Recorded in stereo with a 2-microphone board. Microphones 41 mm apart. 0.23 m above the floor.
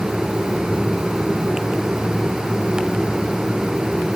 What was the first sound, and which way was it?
Only background noise.